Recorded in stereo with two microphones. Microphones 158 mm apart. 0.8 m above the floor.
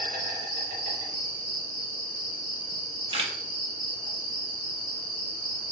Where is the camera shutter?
35° right (ahead or behind), 0.6 m.